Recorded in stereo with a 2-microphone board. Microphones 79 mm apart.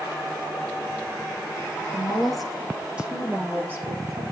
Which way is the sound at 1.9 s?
10° left (ahead or behind).